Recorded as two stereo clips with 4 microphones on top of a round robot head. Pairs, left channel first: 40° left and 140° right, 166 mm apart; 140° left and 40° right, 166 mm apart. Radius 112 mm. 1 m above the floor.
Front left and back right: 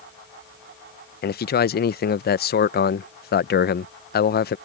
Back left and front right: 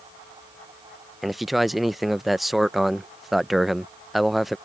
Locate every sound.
1.2 s a man speaking: 50° left